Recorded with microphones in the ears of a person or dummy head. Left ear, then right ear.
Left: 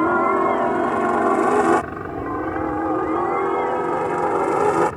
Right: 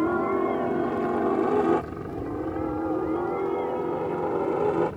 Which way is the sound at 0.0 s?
45° left (ahead or behind).